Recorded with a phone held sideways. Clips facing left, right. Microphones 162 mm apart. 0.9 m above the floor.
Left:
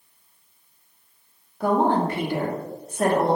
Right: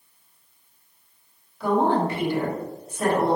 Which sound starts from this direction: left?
A woman speaking, at 1.6 s.